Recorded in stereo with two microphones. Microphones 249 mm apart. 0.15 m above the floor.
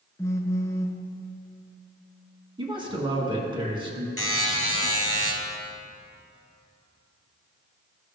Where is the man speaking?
20° right (ahead or behind), 1.5 m.